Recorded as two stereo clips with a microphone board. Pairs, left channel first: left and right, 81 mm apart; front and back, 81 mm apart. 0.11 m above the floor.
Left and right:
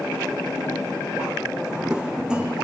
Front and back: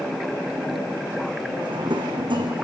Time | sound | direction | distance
1.6 | a drawer | 170° right | 2.5 m